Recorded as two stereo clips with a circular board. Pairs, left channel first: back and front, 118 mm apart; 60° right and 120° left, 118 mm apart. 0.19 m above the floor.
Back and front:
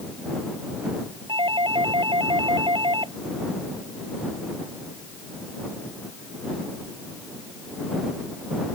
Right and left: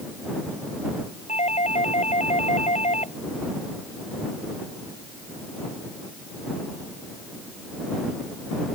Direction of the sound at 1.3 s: 45° right.